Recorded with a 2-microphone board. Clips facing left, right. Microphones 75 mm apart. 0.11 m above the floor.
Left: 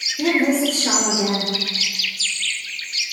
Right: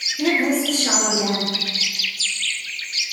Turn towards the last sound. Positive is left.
turn(degrees=0)  # may be behind; listen again after turning